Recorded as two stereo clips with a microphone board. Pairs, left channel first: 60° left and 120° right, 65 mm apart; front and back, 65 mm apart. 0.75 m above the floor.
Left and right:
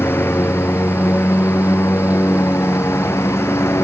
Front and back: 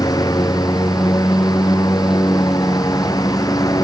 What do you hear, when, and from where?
0.0 s a lawn mower: 5° left; by 3.9 s 15° left